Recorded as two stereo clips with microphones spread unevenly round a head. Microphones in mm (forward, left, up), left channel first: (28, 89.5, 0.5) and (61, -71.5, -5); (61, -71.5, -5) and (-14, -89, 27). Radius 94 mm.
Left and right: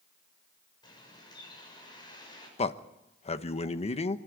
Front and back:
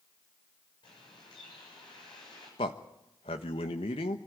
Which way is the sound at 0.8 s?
40° left.